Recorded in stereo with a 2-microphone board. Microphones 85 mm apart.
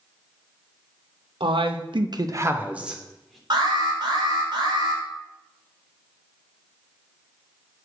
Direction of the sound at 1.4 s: 75° right (ahead or behind).